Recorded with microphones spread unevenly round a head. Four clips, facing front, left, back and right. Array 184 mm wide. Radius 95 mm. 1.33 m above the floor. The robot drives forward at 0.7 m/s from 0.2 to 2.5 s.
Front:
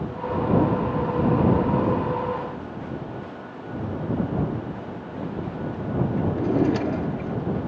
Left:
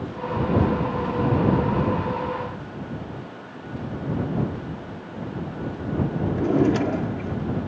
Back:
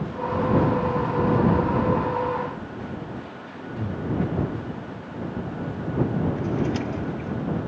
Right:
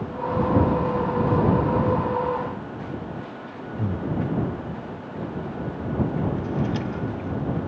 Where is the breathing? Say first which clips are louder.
Right 2 dB, even; 100° right.